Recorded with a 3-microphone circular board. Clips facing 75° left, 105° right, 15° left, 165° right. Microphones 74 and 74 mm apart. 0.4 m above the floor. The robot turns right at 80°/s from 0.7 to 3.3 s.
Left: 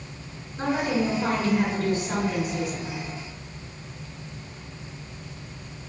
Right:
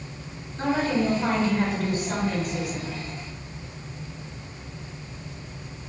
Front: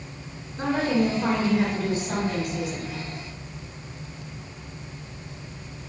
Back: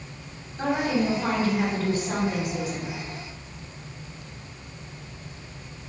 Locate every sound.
0.6 s a woman speaking: 10° left, 1.5 m; by 3.0 s 170° right, 1.5 m